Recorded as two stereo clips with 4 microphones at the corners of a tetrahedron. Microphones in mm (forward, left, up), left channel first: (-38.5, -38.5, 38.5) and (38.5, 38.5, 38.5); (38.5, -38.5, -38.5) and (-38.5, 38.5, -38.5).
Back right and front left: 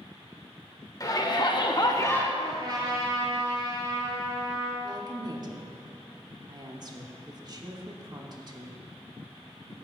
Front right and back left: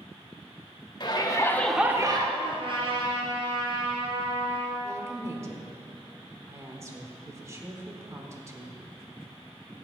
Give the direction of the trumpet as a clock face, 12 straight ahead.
9 o'clock.